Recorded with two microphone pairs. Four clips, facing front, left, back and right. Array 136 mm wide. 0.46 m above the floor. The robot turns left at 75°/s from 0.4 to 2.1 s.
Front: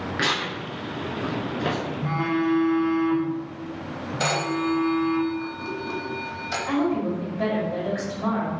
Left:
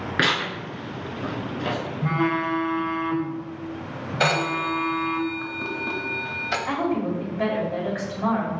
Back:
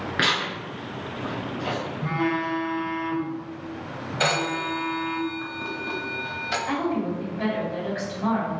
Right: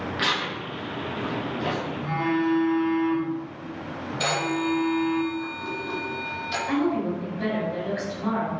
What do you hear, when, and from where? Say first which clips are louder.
0.2 s tearing paper: left 5 dB, back 2 dB; 105° left, 2 m; by 1.8 s 5° left, 2 m
2.0 s a phone buzzing: left 1 dB, front 2 dB; 80° left, 1.3 m; by 5.2 s 75° left, 1.3 m
4.2 s a phone ringing: left 2 dB, front 1 dB; 90° left, 1.4 m
6.7 s a woman speaking: right 1 dB, front 4 dB; 70° left, 2.5 m